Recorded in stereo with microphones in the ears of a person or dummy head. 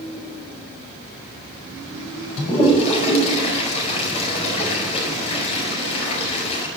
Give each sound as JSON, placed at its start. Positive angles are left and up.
{"t": 2.4, "sound": "a toilet flushing", "side_deg": 40, "distance_m": 4.5}